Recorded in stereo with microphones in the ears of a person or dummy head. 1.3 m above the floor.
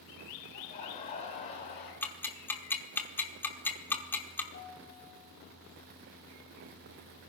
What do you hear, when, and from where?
0.5 s laughter: 40° left (ahead or behind), 4 m
2.0 s ticking: 15° left (ahead or behind), 1.3 m
4.5 s a piano: 55° left (ahead or behind), 8 m